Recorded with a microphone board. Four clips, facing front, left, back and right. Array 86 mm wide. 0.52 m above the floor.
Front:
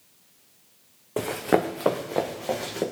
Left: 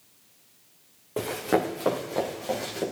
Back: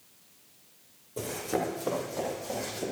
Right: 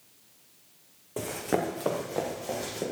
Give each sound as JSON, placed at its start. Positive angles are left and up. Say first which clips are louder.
{"t": 1.2, "sound": "running footsteps", "louder": "left 4 dB, front 8 dB", "azimuth_deg": 15, "distance_m": 2.0}